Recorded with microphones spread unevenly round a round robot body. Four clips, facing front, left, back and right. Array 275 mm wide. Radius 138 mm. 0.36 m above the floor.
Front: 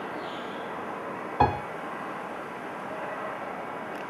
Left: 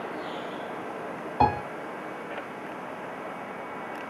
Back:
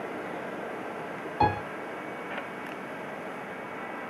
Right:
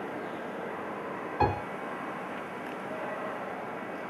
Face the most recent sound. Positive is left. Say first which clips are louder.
# left 5 dB, front 1 dB
turn(degrees=40)